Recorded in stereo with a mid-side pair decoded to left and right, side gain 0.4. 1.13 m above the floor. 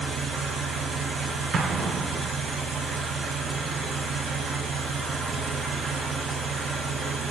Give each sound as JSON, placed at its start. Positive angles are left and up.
{"t": 0.0, "sound": "an engine running", "azimuth_deg": -65, "distance_m": 1.3}
{"t": 1.5, "sound": "an explosion", "azimuth_deg": -55, "distance_m": 0.5}